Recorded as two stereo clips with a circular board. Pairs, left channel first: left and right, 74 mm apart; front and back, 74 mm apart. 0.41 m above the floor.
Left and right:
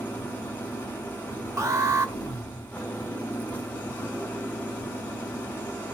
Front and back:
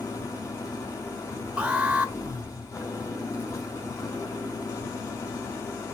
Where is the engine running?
30° left, 1.8 m.